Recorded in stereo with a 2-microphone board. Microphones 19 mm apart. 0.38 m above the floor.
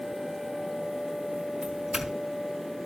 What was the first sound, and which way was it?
A doorbell, 25° right (ahead or behind).